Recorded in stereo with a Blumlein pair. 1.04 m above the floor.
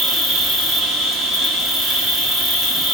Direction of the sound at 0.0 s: 15° right.